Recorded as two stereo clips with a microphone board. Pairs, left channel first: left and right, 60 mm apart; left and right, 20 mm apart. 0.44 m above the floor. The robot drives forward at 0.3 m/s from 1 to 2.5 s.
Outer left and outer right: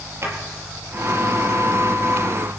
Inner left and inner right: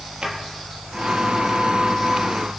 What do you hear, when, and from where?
0.2 s a drawer: 50° right (ahead or behind), 4.5 m